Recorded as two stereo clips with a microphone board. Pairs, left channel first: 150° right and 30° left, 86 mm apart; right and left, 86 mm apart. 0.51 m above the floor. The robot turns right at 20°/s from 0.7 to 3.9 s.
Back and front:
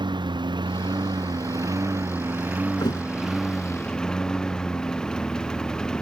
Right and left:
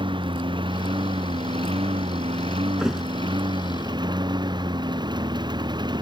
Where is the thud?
170° left; by 3.0 s 175° left.